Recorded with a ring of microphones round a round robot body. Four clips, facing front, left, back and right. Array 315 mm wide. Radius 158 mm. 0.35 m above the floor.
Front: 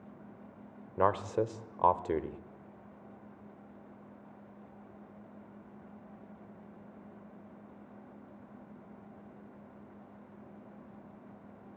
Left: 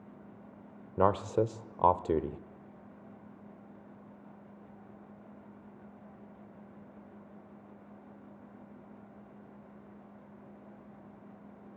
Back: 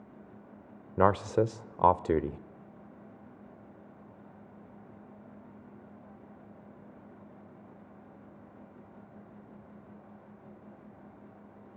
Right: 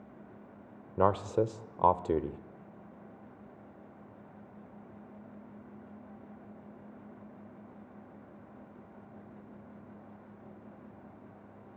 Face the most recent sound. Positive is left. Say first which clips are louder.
# even, back 4 dB
turn(degrees=175)